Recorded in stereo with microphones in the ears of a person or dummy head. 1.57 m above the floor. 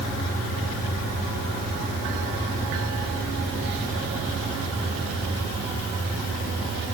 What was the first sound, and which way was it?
Only background noise.